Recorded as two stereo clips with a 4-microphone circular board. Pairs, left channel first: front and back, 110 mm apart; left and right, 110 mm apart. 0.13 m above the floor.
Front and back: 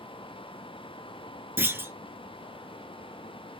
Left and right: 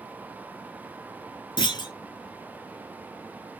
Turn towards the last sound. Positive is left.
turn(degrees=115)